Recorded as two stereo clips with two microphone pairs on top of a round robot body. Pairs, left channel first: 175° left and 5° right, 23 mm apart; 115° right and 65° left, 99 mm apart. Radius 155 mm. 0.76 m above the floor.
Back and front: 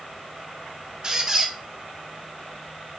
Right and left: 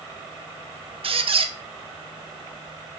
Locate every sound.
1.0 s a squeak: 60° left, 0.5 m